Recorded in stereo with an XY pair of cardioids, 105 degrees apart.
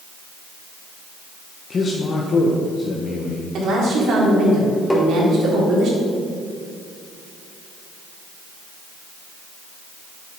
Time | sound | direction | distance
1.7 | a man speaking | 45° left | 1.4 m
3.5 | a woman speaking | 65° right | 3.5 m
4.9 | tapping | 5° left | 2 m